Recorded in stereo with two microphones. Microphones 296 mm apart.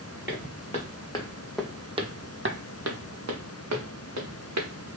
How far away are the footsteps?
About 1.2 m.